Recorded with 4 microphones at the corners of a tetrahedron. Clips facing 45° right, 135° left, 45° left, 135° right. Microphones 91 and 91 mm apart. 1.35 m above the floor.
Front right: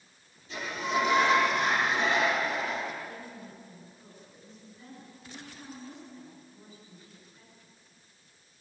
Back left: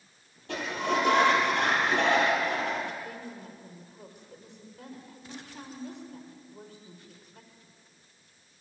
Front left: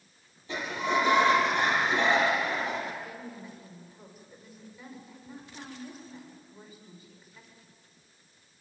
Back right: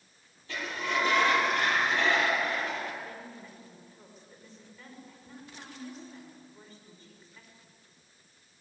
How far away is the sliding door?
About 7 m.